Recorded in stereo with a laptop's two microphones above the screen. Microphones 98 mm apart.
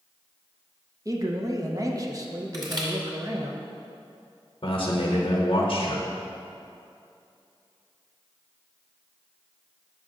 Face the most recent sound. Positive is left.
turn(degrees=60)  # may be behind; listen again after turning